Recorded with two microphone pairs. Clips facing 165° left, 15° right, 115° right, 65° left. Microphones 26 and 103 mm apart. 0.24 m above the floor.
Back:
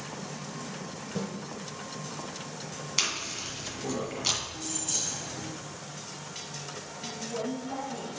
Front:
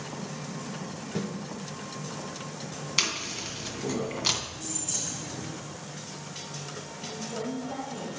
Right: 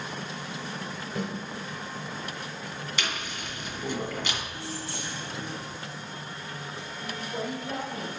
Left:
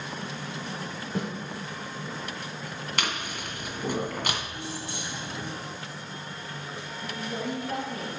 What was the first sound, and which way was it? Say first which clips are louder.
A snare drum: front 2 dB, left 1 dB; 45° left.